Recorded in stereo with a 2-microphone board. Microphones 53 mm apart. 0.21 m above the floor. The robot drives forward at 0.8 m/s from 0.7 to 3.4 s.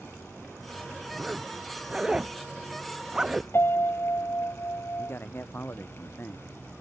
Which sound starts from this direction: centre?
A zipper, at 1.2 s.